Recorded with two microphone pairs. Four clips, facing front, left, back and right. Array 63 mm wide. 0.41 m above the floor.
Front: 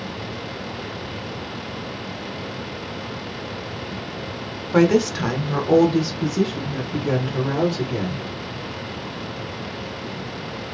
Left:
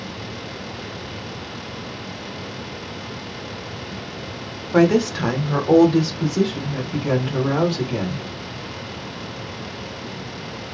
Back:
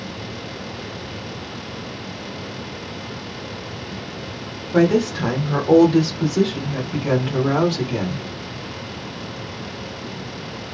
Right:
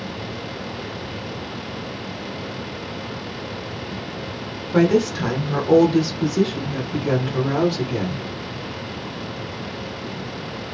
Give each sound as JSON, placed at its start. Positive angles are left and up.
{"t": 4.7, "sound": "a woman speaking", "azimuth_deg": 20, "distance_m": 0.9}